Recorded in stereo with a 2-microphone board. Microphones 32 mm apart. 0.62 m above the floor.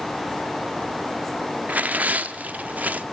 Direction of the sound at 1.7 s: 55° right (ahead or behind).